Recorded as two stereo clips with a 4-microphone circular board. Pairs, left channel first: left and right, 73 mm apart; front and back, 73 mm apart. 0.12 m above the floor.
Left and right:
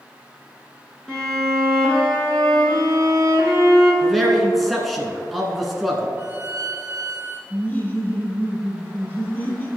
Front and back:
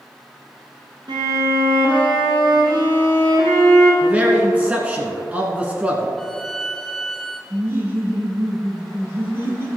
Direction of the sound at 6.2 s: 75° right.